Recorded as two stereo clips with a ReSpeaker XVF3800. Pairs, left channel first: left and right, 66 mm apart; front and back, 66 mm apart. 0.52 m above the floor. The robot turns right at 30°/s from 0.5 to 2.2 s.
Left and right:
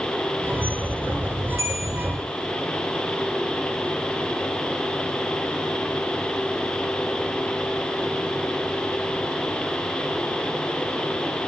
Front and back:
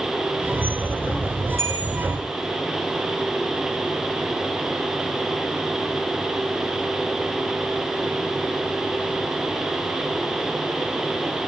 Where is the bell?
135° right, 1.6 m; by 1.9 s 125° right, 1.6 m.